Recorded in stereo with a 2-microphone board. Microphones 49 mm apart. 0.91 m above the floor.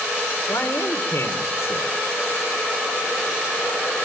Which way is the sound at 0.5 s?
65° left (ahead or behind).